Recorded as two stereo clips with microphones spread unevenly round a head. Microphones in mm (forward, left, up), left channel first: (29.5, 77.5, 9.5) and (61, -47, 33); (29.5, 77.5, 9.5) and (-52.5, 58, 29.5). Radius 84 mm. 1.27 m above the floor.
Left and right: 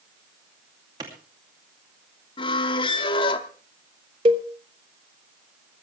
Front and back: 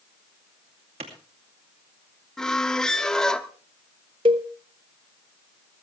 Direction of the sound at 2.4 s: 120° left.